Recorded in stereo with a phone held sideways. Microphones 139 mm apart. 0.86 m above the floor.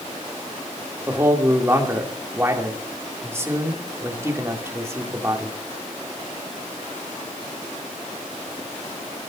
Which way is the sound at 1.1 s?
20° right (ahead or behind).